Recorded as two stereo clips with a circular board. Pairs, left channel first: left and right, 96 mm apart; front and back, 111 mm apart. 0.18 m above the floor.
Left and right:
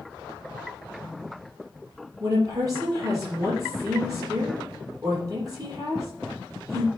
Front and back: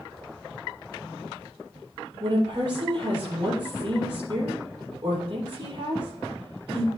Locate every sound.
2.2 s a woman speaking: 140° right, 4.5 m